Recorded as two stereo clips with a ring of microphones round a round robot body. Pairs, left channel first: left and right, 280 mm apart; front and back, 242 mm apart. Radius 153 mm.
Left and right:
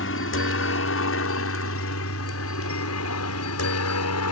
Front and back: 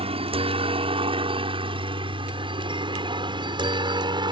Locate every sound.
0.0 s a helicopter: 120° left; by 4.3 s 110° left